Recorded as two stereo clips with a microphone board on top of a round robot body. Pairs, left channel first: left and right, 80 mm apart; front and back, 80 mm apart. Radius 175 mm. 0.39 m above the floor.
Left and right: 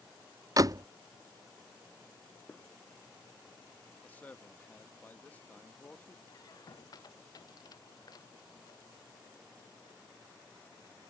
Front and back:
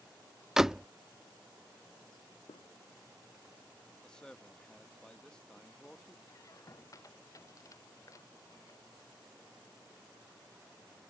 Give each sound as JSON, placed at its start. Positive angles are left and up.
{"t": 0.6, "sound": "a door slam", "azimuth_deg": -95}
{"t": 2.5, "sound": "a gunshot", "azimuth_deg": 15}
{"t": 4.0, "sound": "a man speaking", "azimuth_deg": 65}
{"t": 6.3, "sound": "a squeak", "azimuth_deg": 50}